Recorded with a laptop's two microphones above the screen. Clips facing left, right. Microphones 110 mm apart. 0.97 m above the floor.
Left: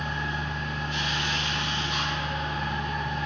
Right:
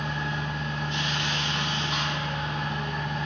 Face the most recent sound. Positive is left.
turn(degrees=-30)  # may be behind; listen again after turning